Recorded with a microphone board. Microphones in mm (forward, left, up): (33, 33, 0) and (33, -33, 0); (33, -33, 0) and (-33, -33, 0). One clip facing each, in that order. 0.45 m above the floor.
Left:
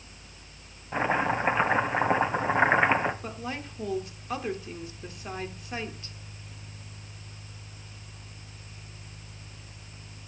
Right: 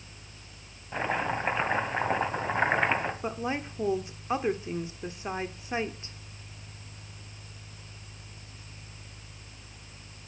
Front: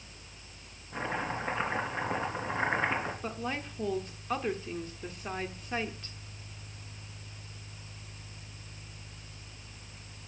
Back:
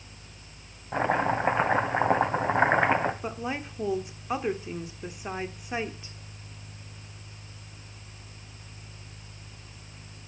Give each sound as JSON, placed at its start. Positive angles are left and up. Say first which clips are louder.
{"t": 0.9, "sound": "chopping", "louder": "left 4 dB, back 9 dB", "azimuth_deg": 165, "distance_m": 2.0}
{"t": 3.2, "sound": "a woman speaking", "louder": "right 4 dB, back 3 dB", "azimuth_deg": -125, "distance_m": 1.1}